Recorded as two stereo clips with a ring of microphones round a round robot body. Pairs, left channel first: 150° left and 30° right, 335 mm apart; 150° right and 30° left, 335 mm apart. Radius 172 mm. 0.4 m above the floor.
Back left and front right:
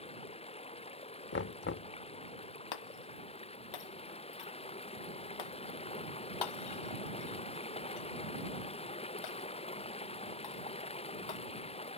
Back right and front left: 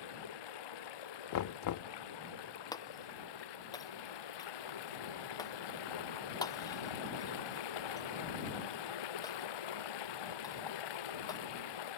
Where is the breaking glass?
130° left.